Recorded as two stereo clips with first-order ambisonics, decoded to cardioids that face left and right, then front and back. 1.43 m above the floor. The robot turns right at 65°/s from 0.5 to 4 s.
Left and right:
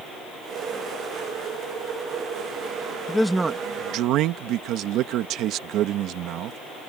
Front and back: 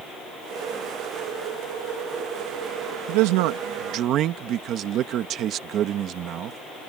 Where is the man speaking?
170° left; by 6.6 s 130° right.